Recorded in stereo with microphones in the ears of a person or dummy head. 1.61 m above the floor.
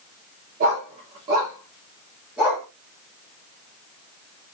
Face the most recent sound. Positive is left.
turn(degrees=-5)  # may be behind; listen again after turning